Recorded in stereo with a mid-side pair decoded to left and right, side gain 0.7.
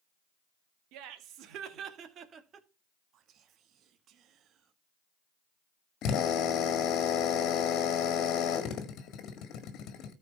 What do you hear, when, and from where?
0.9 s laughter: 65° right, 2 m; by 2.7 s 30° right, 1.9 m
3.1 s whispering: 50° right, 1.4 m
6.0 s a drill: 55° left, 1.8 m